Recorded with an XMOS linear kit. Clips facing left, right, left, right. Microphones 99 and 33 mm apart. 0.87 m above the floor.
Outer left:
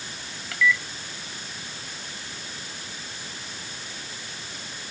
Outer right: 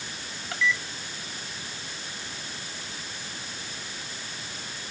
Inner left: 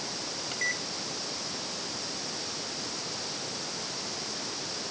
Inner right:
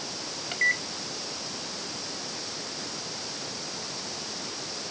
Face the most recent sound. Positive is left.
turn(degrees=-30)  # may be behind; listen again after turning